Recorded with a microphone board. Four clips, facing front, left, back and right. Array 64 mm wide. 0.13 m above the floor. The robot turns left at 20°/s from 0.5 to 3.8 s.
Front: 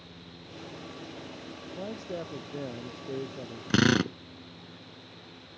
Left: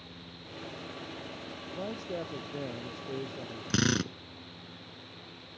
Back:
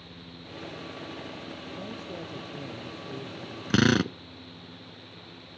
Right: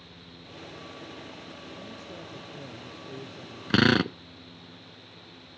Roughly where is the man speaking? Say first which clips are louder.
Left 10 dB, front 5 dB; ahead left.